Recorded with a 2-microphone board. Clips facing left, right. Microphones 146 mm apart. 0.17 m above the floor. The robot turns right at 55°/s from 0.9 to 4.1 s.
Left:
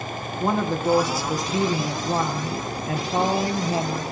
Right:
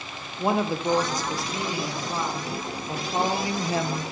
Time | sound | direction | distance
0.4 | a woman speaking | 10° right | 3.5 m